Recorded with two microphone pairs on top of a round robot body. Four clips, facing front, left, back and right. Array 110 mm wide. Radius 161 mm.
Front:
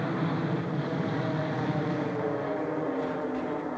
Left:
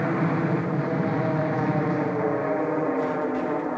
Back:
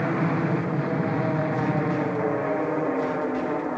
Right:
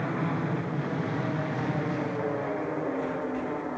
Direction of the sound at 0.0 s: 125° left.